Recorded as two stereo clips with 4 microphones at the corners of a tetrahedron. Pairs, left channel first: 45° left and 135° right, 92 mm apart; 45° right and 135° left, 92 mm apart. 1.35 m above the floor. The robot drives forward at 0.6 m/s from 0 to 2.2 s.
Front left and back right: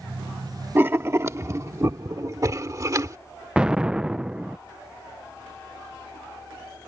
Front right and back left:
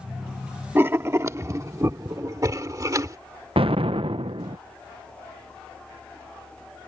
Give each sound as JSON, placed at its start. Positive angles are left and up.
{"t": 0.8, "sound": "writing", "azimuth_deg": 180}
{"t": 3.6, "sound": "an explosion", "azimuth_deg": 145}